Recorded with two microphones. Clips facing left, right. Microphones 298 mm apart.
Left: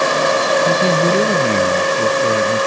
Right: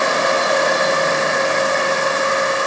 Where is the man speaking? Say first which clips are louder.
Left 4 dB; 75° left (ahead or behind).